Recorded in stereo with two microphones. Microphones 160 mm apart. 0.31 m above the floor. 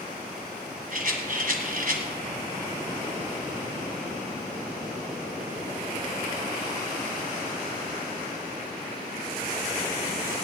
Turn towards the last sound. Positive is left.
turn(degrees=-60)  # may be behind; listen again after turning